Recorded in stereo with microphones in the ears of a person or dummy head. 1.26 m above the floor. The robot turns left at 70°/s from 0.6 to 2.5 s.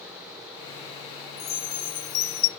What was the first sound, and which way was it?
A chime, 125° left.